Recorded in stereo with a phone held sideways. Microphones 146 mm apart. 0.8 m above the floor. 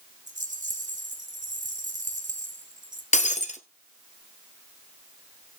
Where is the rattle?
55° right (ahead or behind), 2 m.